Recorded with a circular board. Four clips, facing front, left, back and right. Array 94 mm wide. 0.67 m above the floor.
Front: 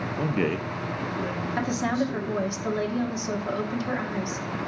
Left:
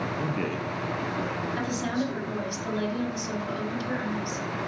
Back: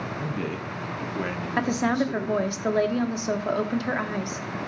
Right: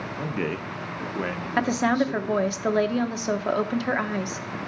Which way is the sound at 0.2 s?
5° right.